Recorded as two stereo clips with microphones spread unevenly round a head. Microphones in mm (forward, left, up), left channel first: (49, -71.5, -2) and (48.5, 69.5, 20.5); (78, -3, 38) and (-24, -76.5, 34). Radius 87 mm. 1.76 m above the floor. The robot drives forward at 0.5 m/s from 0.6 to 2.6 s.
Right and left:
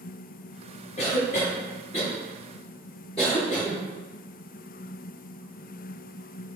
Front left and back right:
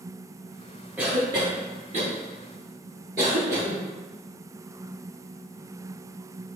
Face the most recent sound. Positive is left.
turn(degrees=-150)